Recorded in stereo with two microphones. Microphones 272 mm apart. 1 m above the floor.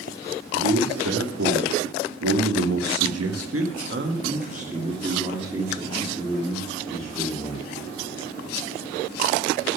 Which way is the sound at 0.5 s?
60° right (ahead or behind).